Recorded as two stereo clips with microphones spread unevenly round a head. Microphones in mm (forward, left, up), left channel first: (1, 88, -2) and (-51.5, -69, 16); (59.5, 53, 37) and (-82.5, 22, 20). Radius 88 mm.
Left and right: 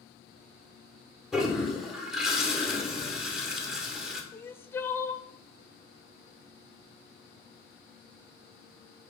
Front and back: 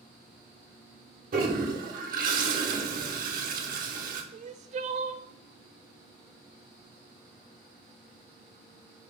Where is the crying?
150° left, 0.5 m.